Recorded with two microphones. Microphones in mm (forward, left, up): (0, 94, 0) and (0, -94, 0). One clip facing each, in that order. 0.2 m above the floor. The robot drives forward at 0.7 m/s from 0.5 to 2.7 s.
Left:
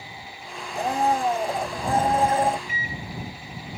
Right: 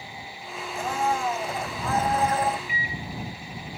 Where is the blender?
35° left (ahead or behind); by 2.6 s 30° left (ahead or behind).